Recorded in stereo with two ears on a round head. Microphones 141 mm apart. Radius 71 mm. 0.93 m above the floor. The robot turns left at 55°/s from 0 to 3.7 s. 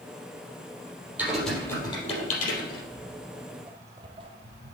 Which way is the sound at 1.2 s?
15° right (ahead or behind).